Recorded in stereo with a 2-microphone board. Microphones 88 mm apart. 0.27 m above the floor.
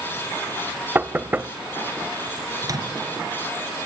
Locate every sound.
0.9 s knocking: 20° right (ahead or behind), 0.6 m
2.6 s a microwave: 40° right (ahead or behind), 2.5 m